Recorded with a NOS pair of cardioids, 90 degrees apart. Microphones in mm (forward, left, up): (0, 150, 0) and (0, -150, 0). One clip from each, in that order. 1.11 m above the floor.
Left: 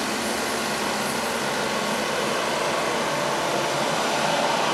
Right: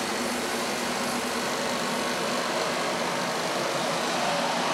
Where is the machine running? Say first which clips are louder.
Left 3 dB; 30° left, 0.7 m.